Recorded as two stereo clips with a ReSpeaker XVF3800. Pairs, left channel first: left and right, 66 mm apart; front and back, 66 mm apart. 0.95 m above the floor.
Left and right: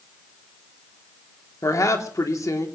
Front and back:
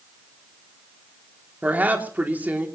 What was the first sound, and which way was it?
A woman speaking, 120° left.